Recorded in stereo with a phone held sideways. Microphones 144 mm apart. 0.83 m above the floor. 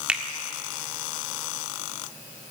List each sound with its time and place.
0.1 s a finger snap: 10° right (ahead or behind), 1.7 m